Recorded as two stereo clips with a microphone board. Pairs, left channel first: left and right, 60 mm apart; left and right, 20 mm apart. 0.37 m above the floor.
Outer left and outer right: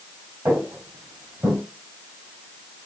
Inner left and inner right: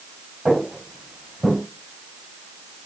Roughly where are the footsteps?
Right.